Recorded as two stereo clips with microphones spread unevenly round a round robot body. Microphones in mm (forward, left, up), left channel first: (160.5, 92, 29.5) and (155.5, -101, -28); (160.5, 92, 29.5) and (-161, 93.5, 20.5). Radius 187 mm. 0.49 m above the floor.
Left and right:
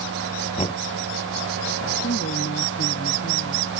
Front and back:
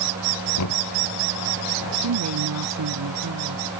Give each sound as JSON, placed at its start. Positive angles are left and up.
{"t": 0.6, "sound": "knocking", "azimuth_deg": 35}
{"t": 2.0, "sound": "a woman speaking", "azimuth_deg": 145}